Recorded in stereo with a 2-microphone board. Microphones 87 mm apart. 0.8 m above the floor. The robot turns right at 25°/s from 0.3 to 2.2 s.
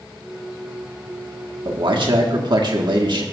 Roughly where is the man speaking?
Right.